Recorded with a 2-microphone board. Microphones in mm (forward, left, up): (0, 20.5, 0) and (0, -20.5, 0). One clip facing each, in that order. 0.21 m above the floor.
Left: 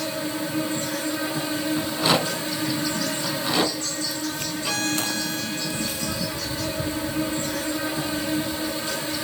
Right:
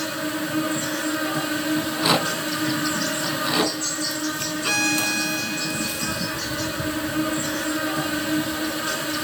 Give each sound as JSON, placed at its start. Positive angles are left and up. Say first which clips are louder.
{"t": 0.0, "sound": "an insect", "louder": "right 1 dB", "side_deg": -50, "distance_m": 1.3}
{"t": 1.8, "sound": "a rattle", "louder": "even", "side_deg": -10, "distance_m": 1.3}
{"t": 4.6, "sound": "a violin", "louder": "right 4 dB", "side_deg": -55, "distance_m": 1.7}